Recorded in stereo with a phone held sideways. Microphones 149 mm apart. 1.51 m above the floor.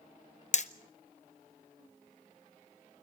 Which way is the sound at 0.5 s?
50° left (ahead or behind).